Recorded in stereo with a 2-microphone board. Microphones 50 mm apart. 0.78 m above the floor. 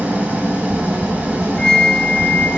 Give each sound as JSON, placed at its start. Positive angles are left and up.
{"t": 0.0, "sound": "an engine running", "side_deg": -30, "distance_m": 1.1}
{"t": 1.6, "sound": "a flute", "side_deg": 20, "distance_m": 0.5}